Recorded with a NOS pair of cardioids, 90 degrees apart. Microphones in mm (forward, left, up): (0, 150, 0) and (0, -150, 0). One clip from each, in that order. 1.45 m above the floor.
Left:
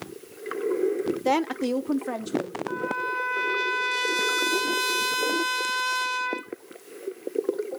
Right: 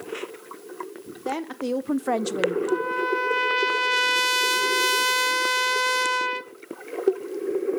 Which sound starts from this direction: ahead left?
A woman speaking, at 1.2 s.